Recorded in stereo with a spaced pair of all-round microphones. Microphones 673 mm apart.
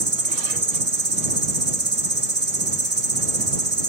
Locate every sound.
0.0 s an insect: 60° right (ahead or behind)